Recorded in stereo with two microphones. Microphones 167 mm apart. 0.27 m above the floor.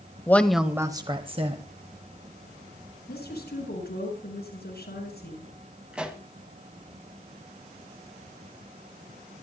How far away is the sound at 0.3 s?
About 1.0 m.